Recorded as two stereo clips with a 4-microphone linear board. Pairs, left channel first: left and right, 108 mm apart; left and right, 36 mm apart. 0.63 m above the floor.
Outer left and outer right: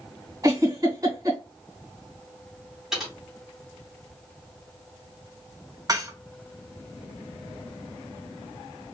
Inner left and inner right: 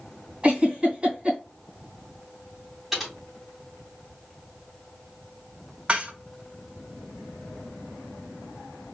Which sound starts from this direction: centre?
Typing on a keyboard, at 2.9 s.